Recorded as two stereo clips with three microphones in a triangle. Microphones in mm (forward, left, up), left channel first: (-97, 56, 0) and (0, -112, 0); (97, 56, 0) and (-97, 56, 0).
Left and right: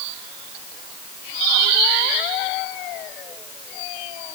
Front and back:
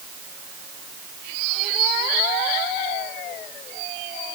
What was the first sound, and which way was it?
Only background noise.